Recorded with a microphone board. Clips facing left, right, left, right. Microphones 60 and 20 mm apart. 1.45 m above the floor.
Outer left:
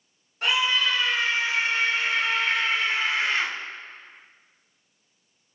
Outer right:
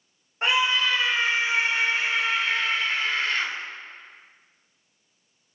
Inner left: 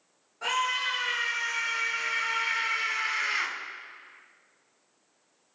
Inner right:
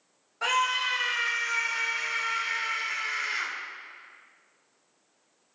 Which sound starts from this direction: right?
A scream, at 0.4 s.